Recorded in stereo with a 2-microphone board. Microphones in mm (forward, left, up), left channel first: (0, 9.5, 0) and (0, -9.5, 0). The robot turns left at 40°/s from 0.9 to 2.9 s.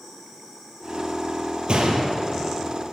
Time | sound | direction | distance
1.7 | a gunshot | 70° right (ahead or behind) | 1.7 m